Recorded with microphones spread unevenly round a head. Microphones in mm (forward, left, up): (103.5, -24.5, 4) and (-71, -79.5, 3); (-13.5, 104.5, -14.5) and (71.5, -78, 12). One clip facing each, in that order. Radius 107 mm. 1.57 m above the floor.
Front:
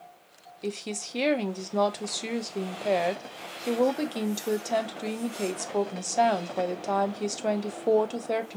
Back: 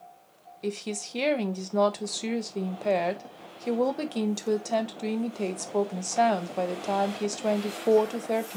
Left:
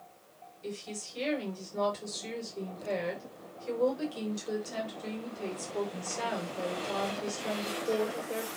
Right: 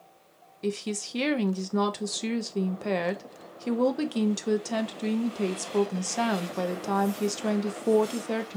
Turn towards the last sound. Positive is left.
turn(degrees=-70)